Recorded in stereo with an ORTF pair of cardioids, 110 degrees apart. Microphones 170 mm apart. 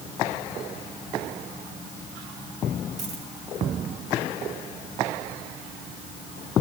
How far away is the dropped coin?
About 5 m.